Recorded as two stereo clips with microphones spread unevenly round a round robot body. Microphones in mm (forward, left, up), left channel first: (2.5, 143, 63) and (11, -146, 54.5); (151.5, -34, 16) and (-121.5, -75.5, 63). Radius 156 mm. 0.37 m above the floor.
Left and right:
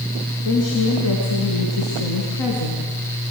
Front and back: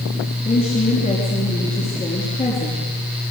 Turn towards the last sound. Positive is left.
turn(degrees=75)